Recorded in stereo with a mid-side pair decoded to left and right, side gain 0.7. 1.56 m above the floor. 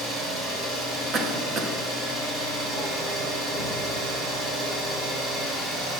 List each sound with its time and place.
0.0 s an engine running: 40° right, 6 m
1.1 s a cough: 40° right, 1.6 m